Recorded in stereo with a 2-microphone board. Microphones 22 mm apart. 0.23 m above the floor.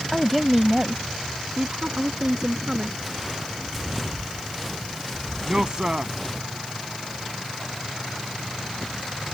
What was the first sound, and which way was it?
A woman speaking, 5° left (ahead or behind).